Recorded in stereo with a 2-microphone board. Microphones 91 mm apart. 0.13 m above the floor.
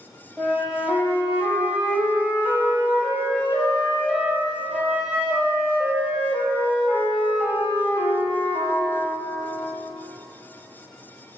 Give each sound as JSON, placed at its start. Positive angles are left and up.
{"t": 0.4, "sound": "a flute", "side_deg": -10, "distance_m": 0.8}